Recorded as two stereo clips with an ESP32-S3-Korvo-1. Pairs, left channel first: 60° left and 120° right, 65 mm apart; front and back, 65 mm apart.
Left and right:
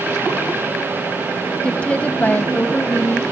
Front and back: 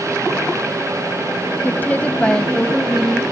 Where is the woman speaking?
Straight ahead, 1.1 m; by 3.2 s 100° left, 1.3 m.